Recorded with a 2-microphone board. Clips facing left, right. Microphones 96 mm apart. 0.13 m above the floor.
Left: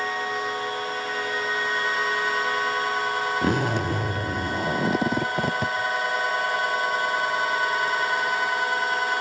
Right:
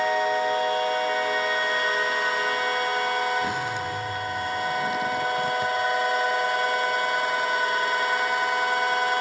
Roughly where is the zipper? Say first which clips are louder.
Left 4 dB; left.